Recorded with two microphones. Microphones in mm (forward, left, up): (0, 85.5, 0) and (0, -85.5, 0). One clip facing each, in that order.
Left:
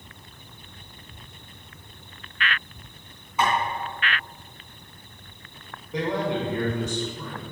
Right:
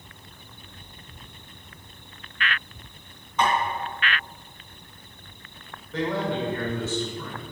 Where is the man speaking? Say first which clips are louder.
Left 1 dB; 15° left (ahead or behind), 2 m.